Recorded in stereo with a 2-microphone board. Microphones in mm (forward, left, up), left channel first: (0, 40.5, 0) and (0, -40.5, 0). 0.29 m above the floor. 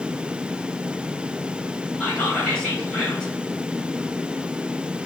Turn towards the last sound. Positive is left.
turn(degrees=10)  # may be behind; listen again after turning